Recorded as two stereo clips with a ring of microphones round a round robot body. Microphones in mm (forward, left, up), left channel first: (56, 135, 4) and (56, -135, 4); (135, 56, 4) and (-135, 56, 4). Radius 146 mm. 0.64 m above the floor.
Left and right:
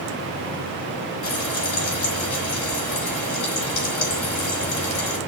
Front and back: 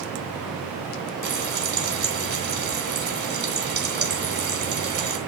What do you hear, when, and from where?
1.2 s frying: 130° left, 3 m